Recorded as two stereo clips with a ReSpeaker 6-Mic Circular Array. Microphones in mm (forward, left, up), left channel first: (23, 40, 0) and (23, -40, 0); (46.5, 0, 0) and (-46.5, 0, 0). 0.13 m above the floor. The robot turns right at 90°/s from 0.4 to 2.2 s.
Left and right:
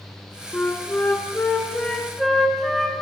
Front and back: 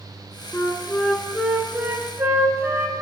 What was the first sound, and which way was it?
A flute, 20° left.